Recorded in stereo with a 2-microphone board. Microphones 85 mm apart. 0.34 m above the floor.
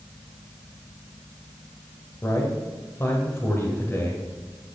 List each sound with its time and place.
2.2 s a man speaking: 30° left (ahead or behind), 1.3 m